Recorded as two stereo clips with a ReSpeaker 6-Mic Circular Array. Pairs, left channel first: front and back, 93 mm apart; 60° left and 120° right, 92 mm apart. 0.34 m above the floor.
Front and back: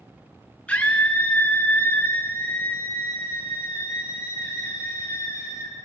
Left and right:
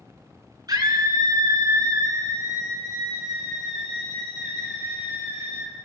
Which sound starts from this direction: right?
A scream, at 0.7 s.